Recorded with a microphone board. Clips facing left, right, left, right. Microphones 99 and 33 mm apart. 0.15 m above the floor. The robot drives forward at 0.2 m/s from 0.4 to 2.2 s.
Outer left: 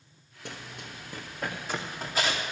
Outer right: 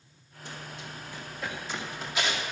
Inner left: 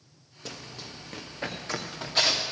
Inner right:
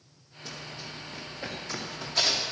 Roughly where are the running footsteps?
Left.